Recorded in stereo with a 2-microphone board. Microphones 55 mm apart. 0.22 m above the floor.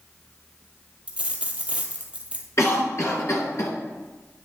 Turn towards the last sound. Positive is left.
turn(degrees=55)  # may be behind; listen again after turning